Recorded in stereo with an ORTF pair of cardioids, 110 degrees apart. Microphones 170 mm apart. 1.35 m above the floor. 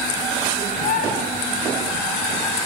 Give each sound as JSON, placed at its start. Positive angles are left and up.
{"t": 0.8, "sound": "a bird", "azimuth_deg": 60, "distance_m": 6.0}